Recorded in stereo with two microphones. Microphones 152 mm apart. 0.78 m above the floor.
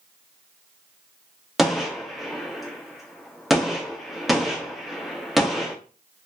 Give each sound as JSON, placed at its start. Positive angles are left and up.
{"t": 1.6, "sound": "a gunshot", "side_deg": 0, "distance_m": 0.8}